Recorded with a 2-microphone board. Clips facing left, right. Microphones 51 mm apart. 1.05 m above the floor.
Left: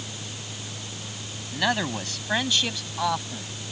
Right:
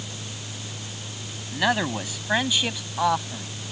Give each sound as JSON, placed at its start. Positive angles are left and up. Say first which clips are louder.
{"t": 1.5, "sound": "a man speaking", "louder": "right 2 dB", "side_deg": -10}